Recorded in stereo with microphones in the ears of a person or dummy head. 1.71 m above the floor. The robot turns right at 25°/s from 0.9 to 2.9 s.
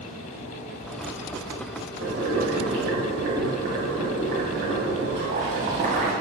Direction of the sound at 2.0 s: 40° right (ahead or behind).